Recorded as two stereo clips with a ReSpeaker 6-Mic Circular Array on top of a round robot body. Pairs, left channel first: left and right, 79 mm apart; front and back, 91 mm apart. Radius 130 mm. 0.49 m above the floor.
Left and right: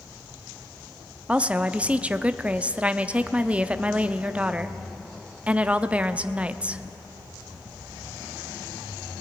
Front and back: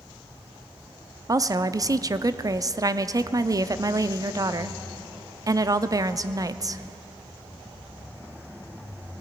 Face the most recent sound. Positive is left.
turn(degrees=-155)